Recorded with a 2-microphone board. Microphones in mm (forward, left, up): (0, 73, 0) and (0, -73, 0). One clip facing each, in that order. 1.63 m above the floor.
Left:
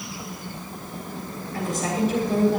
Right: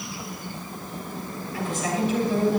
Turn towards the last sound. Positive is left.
turn(degrees=45)  # may be behind; listen again after turning